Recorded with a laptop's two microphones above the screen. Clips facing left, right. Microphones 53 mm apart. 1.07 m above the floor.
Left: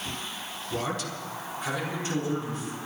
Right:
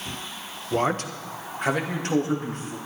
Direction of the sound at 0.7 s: 30° right (ahead or behind).